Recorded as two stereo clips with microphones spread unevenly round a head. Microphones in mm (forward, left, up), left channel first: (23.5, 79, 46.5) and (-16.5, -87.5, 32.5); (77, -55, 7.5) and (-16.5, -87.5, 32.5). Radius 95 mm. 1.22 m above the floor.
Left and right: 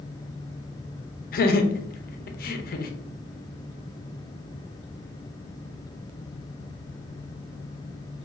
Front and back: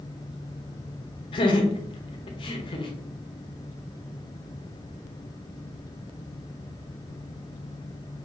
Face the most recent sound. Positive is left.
turn(degrees=45)